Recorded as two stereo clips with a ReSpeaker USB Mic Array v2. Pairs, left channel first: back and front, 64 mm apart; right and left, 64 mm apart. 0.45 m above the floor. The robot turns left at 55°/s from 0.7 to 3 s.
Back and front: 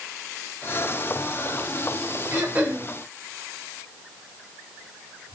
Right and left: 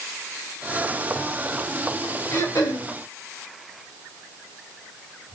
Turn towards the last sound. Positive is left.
turn(degrees=-85)